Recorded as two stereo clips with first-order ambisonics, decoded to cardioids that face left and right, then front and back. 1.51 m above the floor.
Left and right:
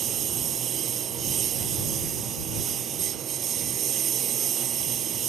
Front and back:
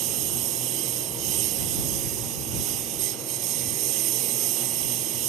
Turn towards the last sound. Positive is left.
turn(degrees=-145)